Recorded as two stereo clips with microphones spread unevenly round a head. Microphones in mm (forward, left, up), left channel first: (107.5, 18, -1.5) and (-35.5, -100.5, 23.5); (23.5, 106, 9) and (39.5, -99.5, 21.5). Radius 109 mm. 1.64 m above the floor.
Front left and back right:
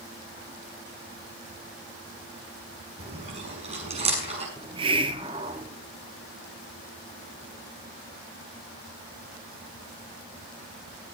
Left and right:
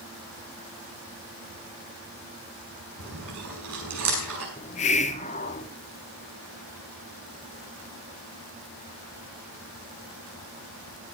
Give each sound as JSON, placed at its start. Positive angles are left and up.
{"t": 3.0, "sound": "chewing", "azimuth_deg": -85, "distance_m": 6.0}
{"t": 4.6, "sound": "a hiss", "azimuth_deg": 155, "distance_m": 0.6}